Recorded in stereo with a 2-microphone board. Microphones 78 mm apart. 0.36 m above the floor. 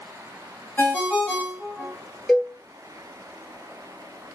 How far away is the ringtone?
About 1.0 m.